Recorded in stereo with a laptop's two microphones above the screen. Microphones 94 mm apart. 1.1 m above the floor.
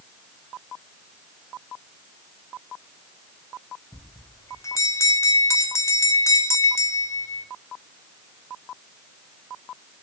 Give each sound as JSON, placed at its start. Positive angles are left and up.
{"t": 3.9, "sound": "a bell", "side_deg": 30, "distance_m": 0.6}